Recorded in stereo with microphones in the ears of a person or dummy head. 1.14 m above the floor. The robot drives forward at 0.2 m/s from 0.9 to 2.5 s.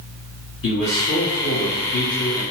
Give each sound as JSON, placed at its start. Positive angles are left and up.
{"t": 0.6, "sound": "a man speaking", "side_deg": 60, "distance_m": 1.6}